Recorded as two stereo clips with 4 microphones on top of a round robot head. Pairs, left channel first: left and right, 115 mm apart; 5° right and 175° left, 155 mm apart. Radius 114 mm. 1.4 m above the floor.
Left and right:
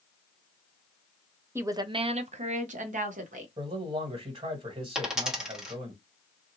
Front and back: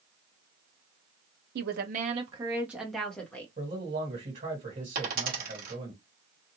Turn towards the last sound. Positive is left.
turn(degrees=-170)